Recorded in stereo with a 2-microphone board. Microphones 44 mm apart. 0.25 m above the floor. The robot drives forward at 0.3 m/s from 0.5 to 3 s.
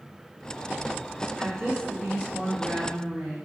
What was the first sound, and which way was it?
A woman speaking, 10° right (ahead or behind).